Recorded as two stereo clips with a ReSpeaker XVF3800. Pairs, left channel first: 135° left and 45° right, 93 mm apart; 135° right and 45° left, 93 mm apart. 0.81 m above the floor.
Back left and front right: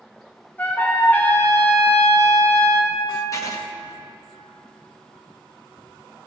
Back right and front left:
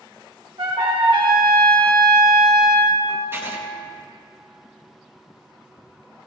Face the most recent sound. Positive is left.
turn(degrees=100)